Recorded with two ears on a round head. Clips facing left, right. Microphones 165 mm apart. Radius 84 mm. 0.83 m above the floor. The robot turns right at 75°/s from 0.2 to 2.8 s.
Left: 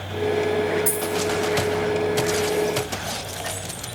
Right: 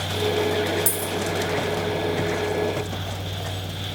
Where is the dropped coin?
85° right, 1.3 m; by 1.1 s 65° right (ahead or behind), 1.3 m.